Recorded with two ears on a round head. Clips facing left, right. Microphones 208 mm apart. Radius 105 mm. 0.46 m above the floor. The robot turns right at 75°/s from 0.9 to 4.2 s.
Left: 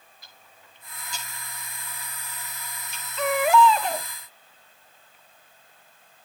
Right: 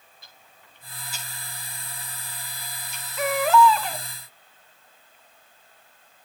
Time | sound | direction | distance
0.2 | ticking | 25° right (ahead or behind) | 7.5 m
3.2 | a baby crying | 10° right | 0.9 m